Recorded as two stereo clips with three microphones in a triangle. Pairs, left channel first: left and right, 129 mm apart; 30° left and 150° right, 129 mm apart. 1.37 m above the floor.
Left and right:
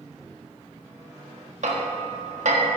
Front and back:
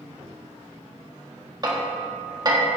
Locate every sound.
1.6 s hammering: 95° right, 1.4 m